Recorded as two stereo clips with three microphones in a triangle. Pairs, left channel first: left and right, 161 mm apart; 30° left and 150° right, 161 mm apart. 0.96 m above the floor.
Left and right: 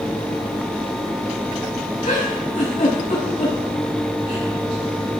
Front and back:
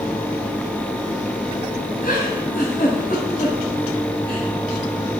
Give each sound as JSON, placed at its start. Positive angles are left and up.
{"t": 2.0, "sound": "a giggle", "azimuth_deg": 50, "distance_m": 6.5}